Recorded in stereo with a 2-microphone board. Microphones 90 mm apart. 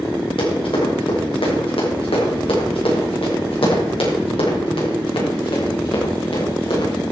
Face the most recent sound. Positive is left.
turn(degrees=70)  # may be behind; listen again after turning